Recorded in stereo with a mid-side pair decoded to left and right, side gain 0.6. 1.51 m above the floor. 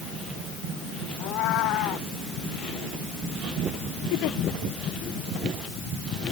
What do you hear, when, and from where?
1.2 s a cat meowing: 65° left
4.1 s a giggle: 70° left